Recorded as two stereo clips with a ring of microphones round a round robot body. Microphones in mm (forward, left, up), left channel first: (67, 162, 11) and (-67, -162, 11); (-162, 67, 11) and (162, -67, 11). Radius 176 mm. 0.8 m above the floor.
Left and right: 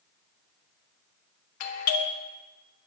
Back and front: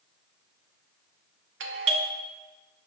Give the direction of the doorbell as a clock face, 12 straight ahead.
11 o'clock.